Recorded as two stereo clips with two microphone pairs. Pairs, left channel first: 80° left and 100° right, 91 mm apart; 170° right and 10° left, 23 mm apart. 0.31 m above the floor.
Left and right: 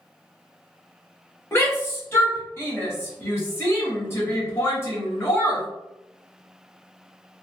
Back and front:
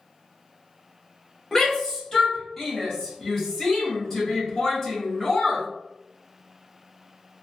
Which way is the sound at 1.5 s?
125° left.